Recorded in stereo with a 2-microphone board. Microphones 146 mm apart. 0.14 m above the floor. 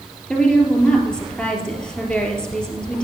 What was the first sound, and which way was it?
A woman speaking, 5° left (ahead or behind).